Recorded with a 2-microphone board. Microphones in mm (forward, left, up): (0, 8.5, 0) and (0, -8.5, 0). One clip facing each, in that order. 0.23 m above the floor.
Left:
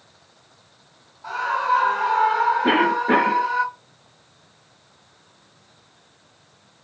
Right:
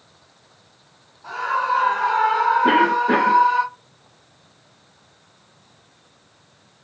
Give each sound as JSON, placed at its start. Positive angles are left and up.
{"t": 1.2, "sound": "a scream", "side_deg": 25, "distance_m": 1.7}
{"t": 2.6, "sound": "a cough", "side_deg": 20, "distance_m": 1.5}